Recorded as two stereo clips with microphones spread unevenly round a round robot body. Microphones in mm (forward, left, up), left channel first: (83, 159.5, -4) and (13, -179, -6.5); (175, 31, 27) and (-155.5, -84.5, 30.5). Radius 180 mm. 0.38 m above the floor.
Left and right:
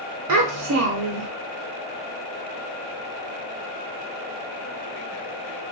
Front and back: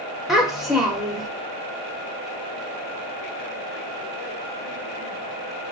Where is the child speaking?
70° right, 0.5 m.